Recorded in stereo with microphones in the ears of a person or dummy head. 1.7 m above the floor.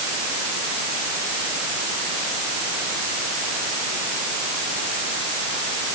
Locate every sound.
Only background noise.